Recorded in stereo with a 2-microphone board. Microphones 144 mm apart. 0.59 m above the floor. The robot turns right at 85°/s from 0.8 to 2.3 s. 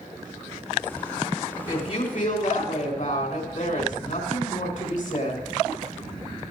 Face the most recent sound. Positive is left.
turn(degrees=80)